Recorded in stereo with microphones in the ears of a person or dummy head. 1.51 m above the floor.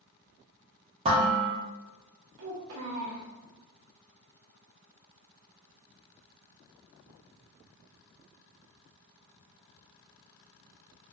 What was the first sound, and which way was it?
Dishes clattering, 30° right (ahead or behind).